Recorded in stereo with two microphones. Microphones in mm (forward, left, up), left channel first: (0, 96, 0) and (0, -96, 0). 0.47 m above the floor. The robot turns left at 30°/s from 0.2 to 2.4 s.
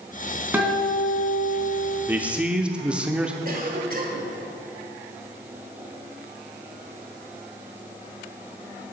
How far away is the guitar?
About 2.5 m.